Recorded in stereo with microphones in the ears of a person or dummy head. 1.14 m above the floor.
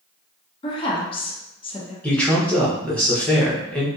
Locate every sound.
0.6 s a woman speaking: 25° left (ahead or behind), 0.6 m
2.0 s a man speaking: 10° left (ahead or behind), 0.8 m